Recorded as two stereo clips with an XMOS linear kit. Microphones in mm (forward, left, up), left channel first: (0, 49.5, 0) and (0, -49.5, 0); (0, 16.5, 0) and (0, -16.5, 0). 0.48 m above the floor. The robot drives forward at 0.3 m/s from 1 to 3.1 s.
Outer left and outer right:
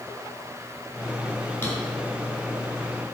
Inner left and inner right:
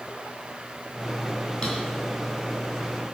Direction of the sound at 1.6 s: 20° left (ahead or behind).